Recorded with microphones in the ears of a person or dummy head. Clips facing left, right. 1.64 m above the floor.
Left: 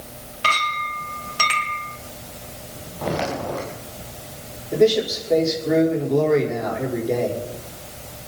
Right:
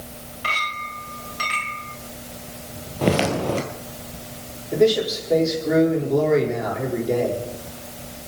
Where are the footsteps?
40° right (ahead or behind), 2.0 m.